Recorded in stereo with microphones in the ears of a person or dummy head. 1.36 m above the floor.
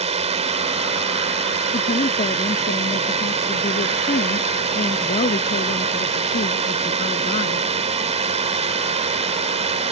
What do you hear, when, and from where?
0.0 s a drone: 35° right (ahead or behind)
1.7 s a woman speaking: 35° left (ahead or behind)